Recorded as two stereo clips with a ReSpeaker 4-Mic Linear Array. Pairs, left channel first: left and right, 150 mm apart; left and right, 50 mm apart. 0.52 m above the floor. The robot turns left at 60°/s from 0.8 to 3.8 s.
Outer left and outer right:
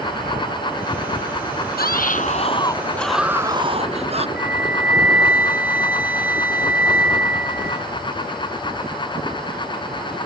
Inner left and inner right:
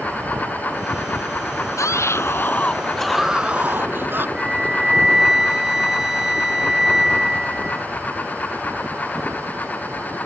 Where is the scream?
80° left; by 4.3 s 40° right.